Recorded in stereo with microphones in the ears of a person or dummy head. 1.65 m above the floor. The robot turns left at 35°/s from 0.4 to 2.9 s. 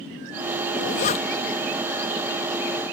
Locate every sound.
0.8 s a zipper: 50° left (ahead or behind); by 1.6 s 30° left (ahead or behind)